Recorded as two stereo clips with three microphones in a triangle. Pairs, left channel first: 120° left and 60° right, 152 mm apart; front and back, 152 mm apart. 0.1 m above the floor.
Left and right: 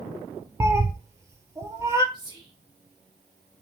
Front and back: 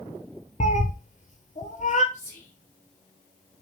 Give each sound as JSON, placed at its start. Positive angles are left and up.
{"t": 0.6, "sound": "a cat meowing", "azimuth_deg": 5, "distance_m": 0.8}
{"t": 2.1, "sound": "whispering", "azimuth_deg": -55, "distance_m": 1.6}